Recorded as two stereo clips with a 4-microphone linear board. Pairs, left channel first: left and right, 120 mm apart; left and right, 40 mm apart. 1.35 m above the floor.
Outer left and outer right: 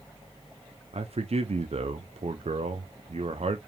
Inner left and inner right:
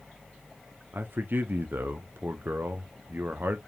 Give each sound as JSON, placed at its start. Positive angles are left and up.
{"t": 0.9, "sound": "a man speaking", "side_deg": -60, "distance_m": 0.6}